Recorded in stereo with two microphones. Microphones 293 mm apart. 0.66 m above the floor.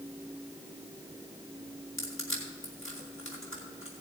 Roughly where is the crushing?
Left.